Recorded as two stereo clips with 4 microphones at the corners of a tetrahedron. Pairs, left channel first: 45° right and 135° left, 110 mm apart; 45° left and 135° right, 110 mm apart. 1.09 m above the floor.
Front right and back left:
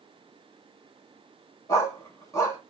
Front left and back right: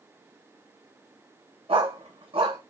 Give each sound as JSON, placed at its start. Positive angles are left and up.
{"t": 1.7, "sound": "a dog barking", "azimuth_deg": -105, "distance_m": 2.0}